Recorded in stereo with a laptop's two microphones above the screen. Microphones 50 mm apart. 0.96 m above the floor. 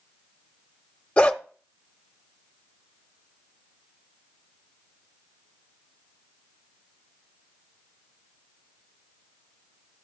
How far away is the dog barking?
About 0.8 m.